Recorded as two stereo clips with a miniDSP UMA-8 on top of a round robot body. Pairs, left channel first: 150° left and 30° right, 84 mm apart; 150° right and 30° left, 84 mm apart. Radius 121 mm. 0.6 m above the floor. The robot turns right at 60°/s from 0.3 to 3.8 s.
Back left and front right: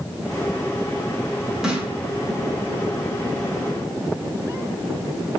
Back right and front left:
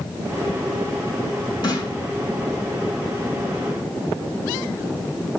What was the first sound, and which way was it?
A snare drum, 115° right.